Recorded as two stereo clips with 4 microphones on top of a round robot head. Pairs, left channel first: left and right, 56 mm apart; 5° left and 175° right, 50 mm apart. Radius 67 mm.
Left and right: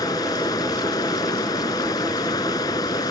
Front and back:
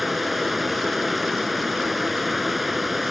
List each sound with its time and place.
0.0 s running water: 100° left